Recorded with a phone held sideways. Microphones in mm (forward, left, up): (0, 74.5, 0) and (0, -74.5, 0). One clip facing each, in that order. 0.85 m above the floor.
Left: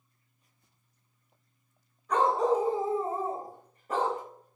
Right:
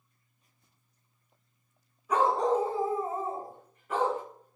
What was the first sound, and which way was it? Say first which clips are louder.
A dog barking: even; 5° right (ahead or behind).